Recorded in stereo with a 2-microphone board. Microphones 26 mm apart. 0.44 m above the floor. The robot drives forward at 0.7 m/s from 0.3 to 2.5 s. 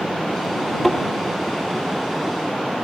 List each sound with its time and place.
0.8 s a thud: centre (ahead or behind), 3.5 m